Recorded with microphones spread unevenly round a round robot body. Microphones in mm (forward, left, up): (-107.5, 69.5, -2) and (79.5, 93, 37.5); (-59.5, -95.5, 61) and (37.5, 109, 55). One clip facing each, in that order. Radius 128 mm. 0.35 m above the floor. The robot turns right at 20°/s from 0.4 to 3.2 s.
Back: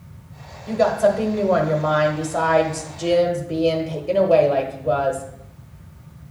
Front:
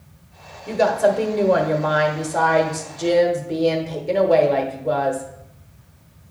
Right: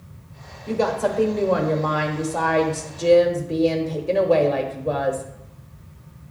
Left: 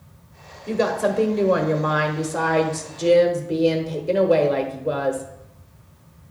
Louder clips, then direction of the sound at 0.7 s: Even, left 1 dB; 50° left.